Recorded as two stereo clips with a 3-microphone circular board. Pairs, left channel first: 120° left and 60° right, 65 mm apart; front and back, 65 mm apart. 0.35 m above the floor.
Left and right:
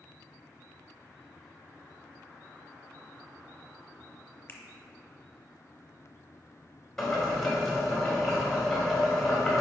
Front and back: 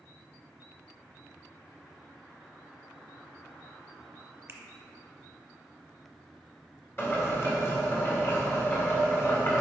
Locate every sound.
4.5 s a finger snap: 165° left, 0.8 m
7.0 s boiling: 35° left, 2 m